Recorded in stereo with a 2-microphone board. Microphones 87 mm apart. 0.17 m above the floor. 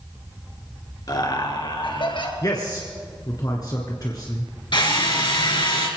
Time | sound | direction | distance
1.1 | laughter | 45° left (ahead or behind) | 2.5 m
2.4 | a man speaking | 45° left (ahead or behind) | 2 m
4.7 | a drill | 60° left (ahead or behind) | 2.5 m